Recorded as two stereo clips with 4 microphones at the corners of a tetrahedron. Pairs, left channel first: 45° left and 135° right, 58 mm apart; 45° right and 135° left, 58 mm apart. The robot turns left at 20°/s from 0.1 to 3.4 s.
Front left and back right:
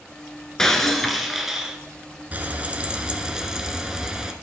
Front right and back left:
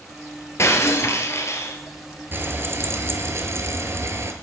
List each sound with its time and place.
0.6 s breaking glass: 35° right, 1.1 m; by 1.8 s 55° right, 1.1 m
2.3 s frying: 170° left, 1.1 m; by 4.3 s 150° left, 1.1 m